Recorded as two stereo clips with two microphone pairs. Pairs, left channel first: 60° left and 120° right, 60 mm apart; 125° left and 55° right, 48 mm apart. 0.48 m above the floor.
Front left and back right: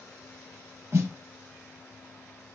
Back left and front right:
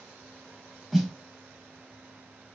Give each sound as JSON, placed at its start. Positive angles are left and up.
{"t": 0.9, "sound": "a snare drum", "azimuth_deg": -150, "distance_m": 0.6}